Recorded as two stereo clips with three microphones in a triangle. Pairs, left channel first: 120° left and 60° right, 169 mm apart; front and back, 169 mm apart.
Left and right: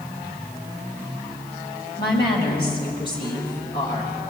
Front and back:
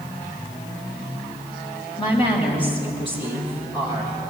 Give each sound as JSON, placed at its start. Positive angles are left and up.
{"t": 2.0, "sound": "a woman speaking", "azimuth_deg": 60, "distance_m": 4.0}